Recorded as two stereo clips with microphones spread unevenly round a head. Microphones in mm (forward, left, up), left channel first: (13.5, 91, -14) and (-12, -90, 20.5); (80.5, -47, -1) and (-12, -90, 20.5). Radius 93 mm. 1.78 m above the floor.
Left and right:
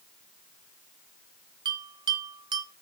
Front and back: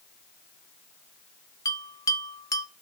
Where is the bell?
35° right, 1.1 m.